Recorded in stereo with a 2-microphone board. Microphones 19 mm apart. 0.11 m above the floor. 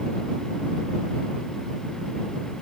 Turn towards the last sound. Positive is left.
No sound to turn to.